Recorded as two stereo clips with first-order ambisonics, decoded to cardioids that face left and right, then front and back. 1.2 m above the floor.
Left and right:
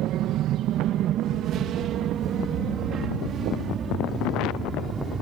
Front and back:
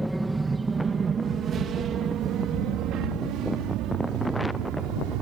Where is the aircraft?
100° right; by 5.2 s 155° right.